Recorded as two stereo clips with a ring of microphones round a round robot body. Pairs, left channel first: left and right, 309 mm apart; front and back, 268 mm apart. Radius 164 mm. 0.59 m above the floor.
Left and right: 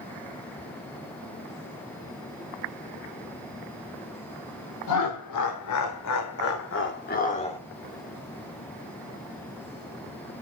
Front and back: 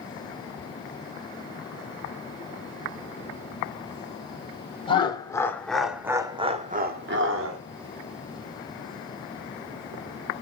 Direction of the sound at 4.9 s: 70° left.